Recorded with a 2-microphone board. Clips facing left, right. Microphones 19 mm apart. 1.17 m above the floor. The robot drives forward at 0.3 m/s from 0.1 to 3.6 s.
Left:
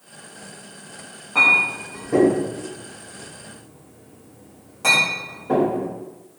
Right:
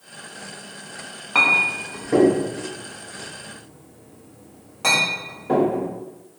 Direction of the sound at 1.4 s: 55° right (ahead or behind).